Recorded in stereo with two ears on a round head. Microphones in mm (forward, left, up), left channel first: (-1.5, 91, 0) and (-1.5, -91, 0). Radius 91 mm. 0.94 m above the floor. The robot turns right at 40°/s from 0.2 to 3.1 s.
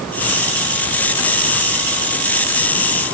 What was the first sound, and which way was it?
Only background noise.